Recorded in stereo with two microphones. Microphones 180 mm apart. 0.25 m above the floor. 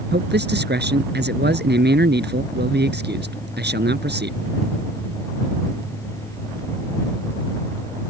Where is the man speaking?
70° right (ahead or behind).